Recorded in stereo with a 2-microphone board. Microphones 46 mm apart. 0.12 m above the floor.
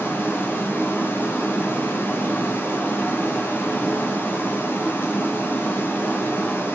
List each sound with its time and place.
0.0 s running water: 45° left (ahead or behind), 4.5 m